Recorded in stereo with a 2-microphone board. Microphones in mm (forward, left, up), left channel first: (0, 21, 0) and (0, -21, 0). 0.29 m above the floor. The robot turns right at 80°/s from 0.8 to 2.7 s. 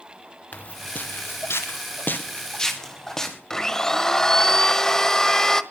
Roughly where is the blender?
Centre.